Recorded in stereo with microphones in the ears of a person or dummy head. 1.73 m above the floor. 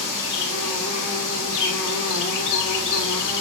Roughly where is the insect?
Left.